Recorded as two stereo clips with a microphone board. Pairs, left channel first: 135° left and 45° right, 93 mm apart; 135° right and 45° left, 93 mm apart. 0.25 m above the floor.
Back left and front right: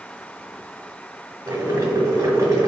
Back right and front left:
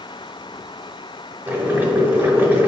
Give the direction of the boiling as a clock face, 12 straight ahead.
12 o'clock.